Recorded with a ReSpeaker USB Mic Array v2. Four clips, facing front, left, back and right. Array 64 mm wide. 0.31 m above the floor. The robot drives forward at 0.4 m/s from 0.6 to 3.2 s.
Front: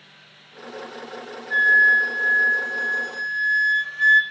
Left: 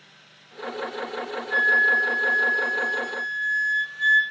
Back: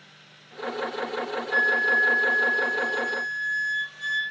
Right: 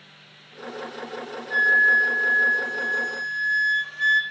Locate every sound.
1.5 s a flute: 15° right, 1.1 m; by 4.2 s 35° right, 0.5 m